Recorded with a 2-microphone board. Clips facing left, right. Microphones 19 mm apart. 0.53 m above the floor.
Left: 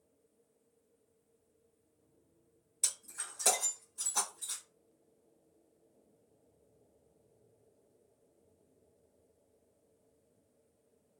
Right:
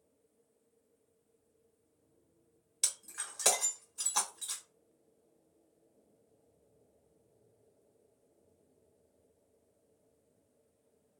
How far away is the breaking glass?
About 1.1 m.